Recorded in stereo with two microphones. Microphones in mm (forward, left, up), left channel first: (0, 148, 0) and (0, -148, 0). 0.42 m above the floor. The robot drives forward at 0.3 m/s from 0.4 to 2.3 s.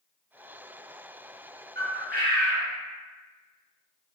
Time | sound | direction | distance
1.8 | a bird | 35° right (ahead or behind) | 1.0 m